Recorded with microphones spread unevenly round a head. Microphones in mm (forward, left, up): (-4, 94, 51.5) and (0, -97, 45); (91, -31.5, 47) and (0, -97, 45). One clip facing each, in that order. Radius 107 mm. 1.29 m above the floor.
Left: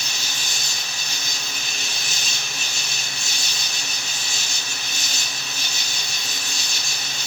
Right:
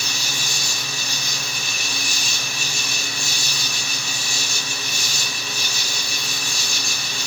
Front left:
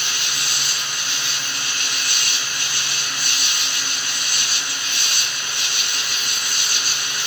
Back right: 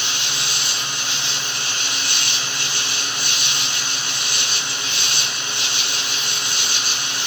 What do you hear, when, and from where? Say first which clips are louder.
0.0 s an insect: right 4 dB, back right 1 dB; 30° left, 1.3 m